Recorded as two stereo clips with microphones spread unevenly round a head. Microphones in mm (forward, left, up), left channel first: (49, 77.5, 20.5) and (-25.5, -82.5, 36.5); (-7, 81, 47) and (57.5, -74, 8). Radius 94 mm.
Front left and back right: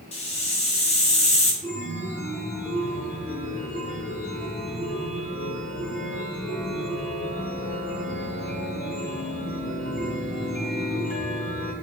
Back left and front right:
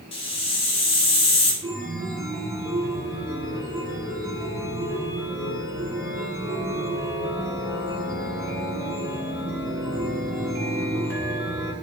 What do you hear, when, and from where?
0.1 s a hiss: 115° left, 1.5 m
1.6 s a chime: 5° left, 2.5 m